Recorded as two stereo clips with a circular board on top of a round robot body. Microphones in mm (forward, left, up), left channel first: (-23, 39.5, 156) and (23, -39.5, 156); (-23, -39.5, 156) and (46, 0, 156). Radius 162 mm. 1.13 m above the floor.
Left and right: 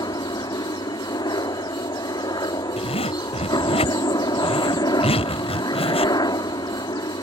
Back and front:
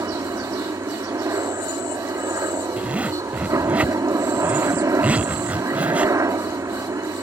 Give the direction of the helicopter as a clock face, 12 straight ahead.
9 o'clock.